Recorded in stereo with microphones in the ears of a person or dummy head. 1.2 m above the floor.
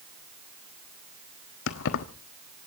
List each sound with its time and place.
1.7 s keys jangling: 70° left (ahead or behind), 1.3 m